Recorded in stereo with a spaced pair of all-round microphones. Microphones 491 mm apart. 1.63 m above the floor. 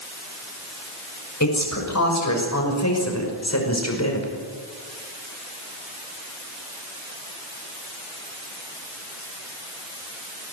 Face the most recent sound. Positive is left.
turn(degrees=30)  # may be behind; listen again after turning